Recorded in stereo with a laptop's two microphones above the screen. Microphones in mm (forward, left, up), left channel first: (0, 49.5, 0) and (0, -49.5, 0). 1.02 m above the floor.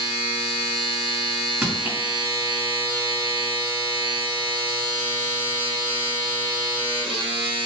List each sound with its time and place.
0.0 s a machine running: 60° right (ahead or behind), 1.0 m
1.6 s crushing: 15° right (ahead or behind), 1.9 m